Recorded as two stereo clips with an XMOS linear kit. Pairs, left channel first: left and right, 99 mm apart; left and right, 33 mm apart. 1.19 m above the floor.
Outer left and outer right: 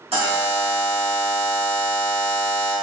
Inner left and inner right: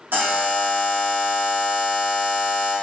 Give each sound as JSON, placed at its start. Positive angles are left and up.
{"t": 0.1, "sound": "a buzzer", "side_deg": -80, "distance_m": 1.6}